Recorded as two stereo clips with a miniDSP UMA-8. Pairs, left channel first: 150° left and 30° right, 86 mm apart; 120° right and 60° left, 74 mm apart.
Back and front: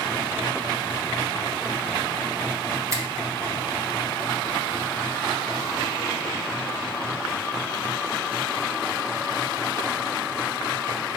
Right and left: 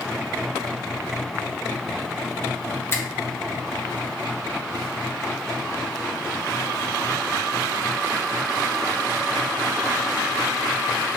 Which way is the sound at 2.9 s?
75° right.